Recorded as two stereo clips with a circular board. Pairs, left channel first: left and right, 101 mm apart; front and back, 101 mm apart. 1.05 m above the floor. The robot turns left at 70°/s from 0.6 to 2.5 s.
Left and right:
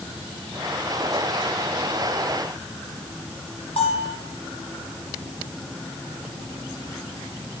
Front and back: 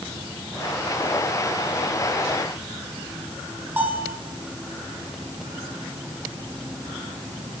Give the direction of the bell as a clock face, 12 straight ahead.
8 o'clock.